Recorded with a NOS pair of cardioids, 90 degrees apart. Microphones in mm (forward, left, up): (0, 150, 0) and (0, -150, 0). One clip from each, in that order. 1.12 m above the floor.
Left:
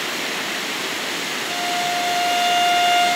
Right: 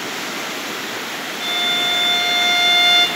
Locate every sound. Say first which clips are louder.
1.4 s a violin: right 6 dB; 60° right, 5 m